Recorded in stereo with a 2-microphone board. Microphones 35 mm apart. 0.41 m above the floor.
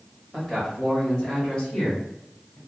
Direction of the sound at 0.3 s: 10° left (ahead or behind).